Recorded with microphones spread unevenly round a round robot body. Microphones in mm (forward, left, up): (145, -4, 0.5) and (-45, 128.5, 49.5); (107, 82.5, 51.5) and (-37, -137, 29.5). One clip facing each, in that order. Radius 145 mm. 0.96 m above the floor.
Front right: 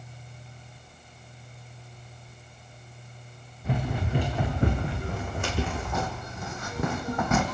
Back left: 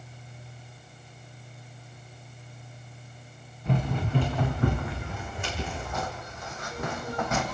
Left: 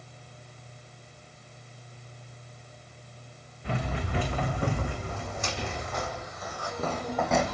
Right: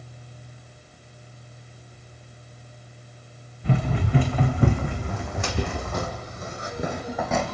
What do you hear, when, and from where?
3.6 s running footsteps: 125° right, 4.5 m; by 7.5 s 25° right, 3 m